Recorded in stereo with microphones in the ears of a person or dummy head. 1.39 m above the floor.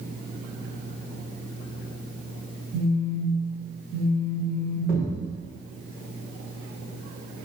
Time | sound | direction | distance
2.7 | a phone buzzing | 60° right (ahead or behind) | 1.7 m
4.9 | a thud | 15° right (ahead or behind) | 1.9 m